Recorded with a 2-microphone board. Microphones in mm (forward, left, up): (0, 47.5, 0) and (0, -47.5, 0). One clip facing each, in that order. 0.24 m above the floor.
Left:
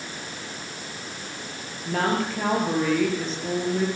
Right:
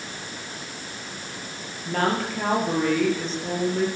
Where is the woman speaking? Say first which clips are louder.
Even; centre (ahead or behind), 6.5 m.